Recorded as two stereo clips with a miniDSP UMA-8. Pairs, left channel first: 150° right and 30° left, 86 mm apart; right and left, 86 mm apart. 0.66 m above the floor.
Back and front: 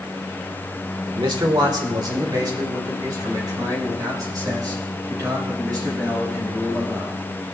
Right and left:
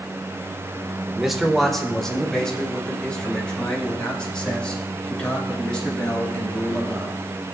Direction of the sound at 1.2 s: 5° left.